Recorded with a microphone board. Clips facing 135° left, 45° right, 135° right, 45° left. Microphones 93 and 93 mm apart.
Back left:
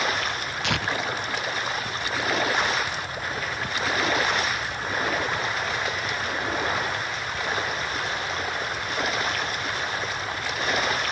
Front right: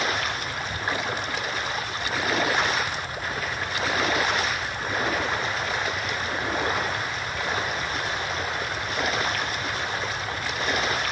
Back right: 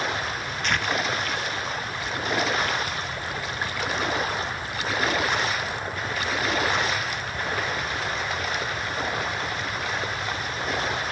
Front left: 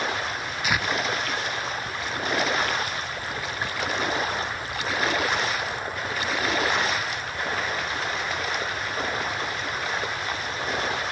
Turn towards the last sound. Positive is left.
turn(degrees=125)